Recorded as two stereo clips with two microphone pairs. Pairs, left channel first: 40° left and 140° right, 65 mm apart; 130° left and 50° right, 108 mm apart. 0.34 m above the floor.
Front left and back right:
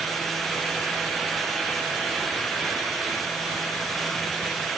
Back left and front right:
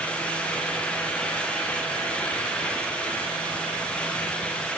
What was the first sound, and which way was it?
Only background noise.